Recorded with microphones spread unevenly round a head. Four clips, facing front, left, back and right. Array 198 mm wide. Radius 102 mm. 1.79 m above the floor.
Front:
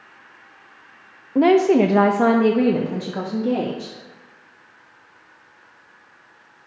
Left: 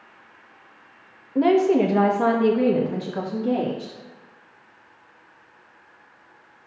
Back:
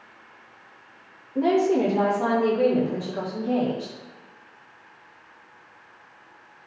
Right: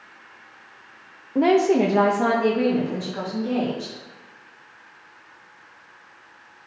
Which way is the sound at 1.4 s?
30° right.